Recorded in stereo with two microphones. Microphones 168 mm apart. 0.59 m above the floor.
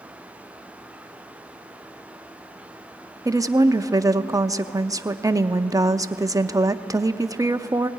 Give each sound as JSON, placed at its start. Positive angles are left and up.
{"t": 3.2, "sound": "a woman speaking", "side_deg": -20, "distance_m": 0.6}